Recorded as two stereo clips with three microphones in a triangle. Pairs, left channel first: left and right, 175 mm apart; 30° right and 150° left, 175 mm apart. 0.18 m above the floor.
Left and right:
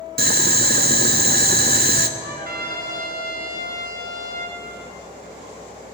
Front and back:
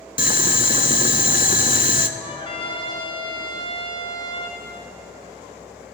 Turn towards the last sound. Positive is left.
turn(degrees=-85)